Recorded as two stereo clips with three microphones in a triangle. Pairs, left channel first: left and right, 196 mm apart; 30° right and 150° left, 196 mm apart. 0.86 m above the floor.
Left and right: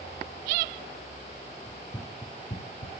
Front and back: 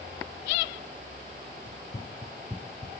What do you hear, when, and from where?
1.7 s running footsteps: 5° left, 1.5 m; by 2.9 s 90° left, 1.2 m